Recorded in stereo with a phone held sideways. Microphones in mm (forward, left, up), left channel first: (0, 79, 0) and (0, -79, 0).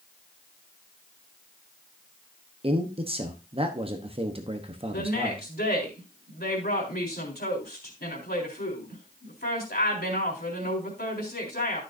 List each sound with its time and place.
2.6 s a man speaking: 35° right (ahead or behind), 1.0 m
4.9 s a woman speaking: 80° left, 3.5 m